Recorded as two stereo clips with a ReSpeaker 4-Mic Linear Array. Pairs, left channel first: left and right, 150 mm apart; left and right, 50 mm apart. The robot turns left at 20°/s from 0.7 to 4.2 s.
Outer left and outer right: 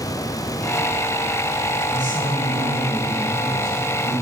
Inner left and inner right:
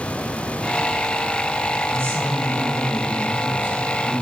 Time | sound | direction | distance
1.9 | a woman speaking | 100° right | 2.5 m